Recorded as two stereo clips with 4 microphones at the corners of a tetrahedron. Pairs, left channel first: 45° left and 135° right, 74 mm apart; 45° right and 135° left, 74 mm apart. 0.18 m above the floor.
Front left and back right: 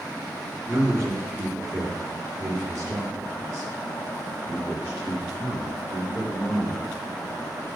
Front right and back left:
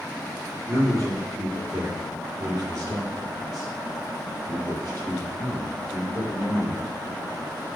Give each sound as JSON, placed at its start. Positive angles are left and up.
{"t": 0.7, "sound": "a man speaking", "azimuth_deg": 180, "distance_m": 3.0}